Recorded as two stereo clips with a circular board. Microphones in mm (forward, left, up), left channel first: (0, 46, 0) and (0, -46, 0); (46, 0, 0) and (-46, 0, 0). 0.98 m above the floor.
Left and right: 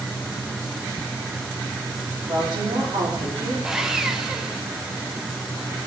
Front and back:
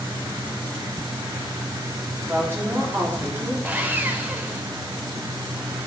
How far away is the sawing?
About 0.8 m.